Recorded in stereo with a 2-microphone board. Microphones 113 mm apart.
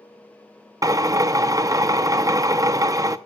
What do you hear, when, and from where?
0.8 s a drill: 30° right (ahead or behind), 0.6 m